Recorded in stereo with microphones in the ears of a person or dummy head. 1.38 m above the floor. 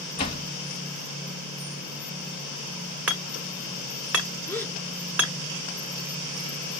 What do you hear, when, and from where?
0.2 s a door slam: 30° left (ahead or behind), 4 m
3.1 s hammering: centre (ahead or behind), 1.6 m
4.5 s a gasp: 10° left (ahead or behind), 1.8 m